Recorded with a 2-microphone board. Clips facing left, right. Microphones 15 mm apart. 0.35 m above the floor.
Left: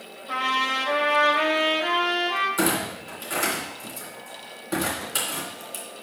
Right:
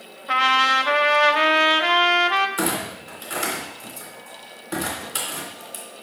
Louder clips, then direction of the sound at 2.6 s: Left 1 dB; 10° right (ahead or behind).